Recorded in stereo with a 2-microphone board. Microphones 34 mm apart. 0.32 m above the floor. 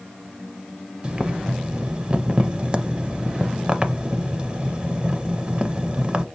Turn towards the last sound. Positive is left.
turn(degrees=-30)  # may be behind; listen again after turning